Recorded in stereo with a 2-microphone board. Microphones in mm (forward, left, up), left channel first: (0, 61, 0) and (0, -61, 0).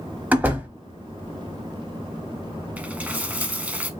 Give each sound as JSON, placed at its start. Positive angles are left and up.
{"t": 0.3, "sound": "a door slam", "side_deg": -15, "distance_m": 1.2}
{"t": 2.8, "sound": "a dropped coin", "side_deg": -15, "distance_m": 0.7}